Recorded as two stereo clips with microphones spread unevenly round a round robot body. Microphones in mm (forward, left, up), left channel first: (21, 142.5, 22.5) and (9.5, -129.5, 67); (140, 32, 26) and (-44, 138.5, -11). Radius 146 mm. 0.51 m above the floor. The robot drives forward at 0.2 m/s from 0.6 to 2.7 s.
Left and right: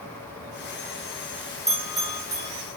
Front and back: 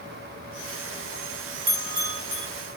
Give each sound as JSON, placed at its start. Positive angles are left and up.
{"t": 1.7, "sound": "a bell", "azimuth_deg": -175, "distance_m": 4.0}